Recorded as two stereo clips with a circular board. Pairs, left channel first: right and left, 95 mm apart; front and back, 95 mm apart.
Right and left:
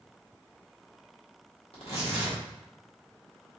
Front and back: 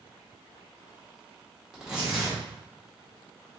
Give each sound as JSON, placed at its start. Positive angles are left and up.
{"t": 1.7, "sound": "tearing paper", "azimuth_deg": -100, "distance_m": 1.8}